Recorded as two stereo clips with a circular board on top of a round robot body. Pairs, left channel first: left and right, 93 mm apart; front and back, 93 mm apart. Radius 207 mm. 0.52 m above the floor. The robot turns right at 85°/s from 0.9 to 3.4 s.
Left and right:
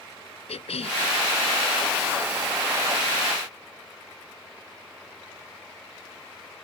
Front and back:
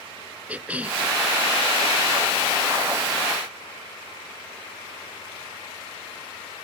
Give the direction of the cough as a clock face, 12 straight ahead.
9 o'clock.